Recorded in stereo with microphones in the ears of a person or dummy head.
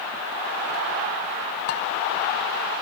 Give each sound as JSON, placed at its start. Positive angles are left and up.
{"t": 1.7, "sound": "dishes clattering", "side_deg": 55, "distance_m": 1.4}